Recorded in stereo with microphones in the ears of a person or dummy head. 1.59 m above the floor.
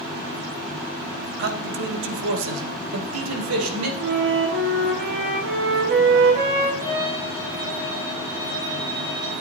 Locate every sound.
1.4 s a man speaking: 55° right (ahead or behind), 1.3 m; by 3.9 s 85° right, 2.5 m
4.0 s a flute: 80° right, 3 m
6.8 s a violin: 15° left (ahead or behind), 3.5 m